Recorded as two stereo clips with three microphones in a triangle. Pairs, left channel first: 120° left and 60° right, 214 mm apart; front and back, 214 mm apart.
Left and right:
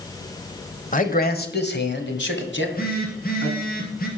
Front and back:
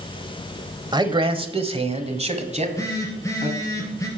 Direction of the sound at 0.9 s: 125° left.